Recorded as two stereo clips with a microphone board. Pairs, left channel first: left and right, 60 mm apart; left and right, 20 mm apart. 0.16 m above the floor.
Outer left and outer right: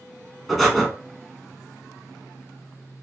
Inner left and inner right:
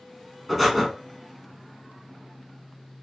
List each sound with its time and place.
0.5 s breathing: centre (ahead or behind), 0.9 m